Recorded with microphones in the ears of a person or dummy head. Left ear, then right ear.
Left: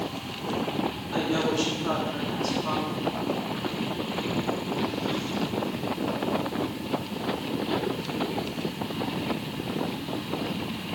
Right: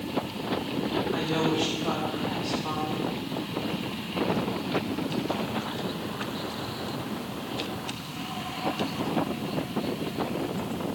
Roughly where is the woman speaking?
Centre.